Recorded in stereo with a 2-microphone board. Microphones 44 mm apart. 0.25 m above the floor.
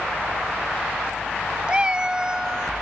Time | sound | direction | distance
1.7 | a cat meowing | 25° right (ahead or behind) | ?